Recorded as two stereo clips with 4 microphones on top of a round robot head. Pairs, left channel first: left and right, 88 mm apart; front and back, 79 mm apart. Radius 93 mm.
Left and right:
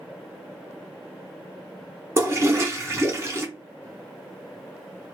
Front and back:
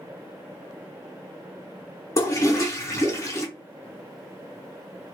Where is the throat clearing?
I don't hear throat clearing.